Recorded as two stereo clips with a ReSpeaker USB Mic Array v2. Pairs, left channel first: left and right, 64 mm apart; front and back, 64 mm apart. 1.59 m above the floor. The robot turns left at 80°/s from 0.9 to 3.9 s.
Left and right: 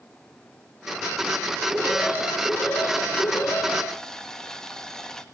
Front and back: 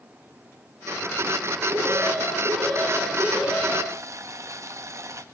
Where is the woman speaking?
I don't hear a woman speaking.